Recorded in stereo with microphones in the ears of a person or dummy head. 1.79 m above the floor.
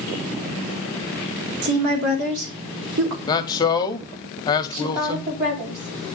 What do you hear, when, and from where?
1.6 s a woman speaking: 70° right (ahead or behind), 2 m
3.3 s a man speaking: 15° left (ahead or behind), 0.8 m
4.7 s a woman speaking: 45° right (ahead or behind), 5.5 m